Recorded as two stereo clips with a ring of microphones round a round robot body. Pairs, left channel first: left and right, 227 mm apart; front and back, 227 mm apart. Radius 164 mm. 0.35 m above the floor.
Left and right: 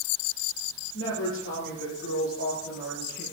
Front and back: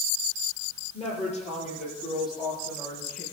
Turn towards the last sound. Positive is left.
turn(degrees=45)